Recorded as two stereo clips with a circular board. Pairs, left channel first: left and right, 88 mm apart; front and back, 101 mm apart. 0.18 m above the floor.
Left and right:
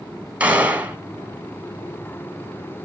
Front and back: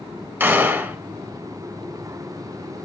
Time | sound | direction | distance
0.4 | a gunshot | 145° right | 1.4 m